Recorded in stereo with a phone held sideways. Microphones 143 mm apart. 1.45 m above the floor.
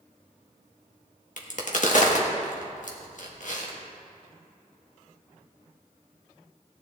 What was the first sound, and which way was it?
A crack, 60° left (ahead or behind).